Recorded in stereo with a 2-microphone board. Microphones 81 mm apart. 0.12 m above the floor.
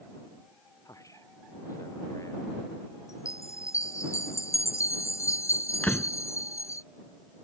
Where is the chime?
35° left (ahead or behind).